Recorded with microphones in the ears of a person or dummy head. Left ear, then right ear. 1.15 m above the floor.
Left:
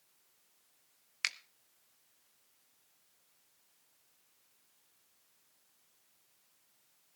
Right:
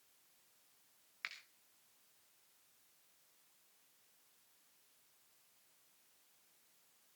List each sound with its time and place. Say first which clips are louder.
1.2 s a finger snap: left 11 dB; 80° left, 1.0 m